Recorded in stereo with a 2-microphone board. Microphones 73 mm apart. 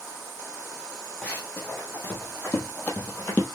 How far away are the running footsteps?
About 3 m.